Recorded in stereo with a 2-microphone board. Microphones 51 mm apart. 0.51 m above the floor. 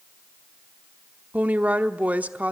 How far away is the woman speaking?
About 1.0 m.